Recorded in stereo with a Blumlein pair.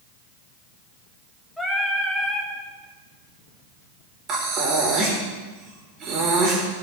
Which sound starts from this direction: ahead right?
Breathing, at 4.3 s.